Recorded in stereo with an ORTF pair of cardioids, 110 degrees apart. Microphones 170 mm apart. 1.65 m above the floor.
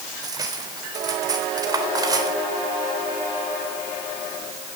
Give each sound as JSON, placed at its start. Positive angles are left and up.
{"t": 0.2, "sound": "cutlery clinking", "azimuth_deg": -25, "distance_m": 3.5}